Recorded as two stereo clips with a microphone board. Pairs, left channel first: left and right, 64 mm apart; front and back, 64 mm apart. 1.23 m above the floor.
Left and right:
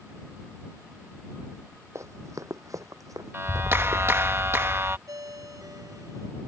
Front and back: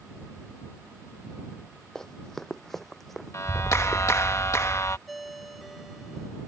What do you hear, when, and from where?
1.9 s running footsteps: 80° right; by 4.0 s 90° right
3.3 s a clap: 40° right
5.1 s a ringtone: 90° right